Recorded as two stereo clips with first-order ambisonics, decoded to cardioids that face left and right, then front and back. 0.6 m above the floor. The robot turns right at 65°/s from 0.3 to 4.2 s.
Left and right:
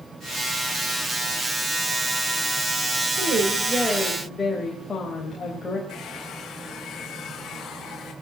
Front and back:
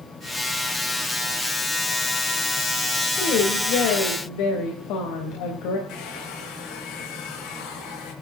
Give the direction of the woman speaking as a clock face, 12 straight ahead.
2 o'clock.